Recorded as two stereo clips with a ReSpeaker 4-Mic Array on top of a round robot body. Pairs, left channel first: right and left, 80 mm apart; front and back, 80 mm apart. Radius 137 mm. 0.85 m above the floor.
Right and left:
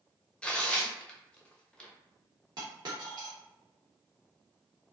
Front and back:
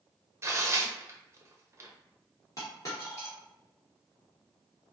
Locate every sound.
0.4 s tearing paper: 160° right, 0.8 m
2.6 s a dropped coin: 50° left, 0.5 m